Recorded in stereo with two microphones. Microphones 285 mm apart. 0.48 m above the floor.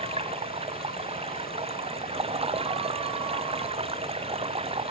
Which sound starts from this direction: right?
Running water, at 0.0 s.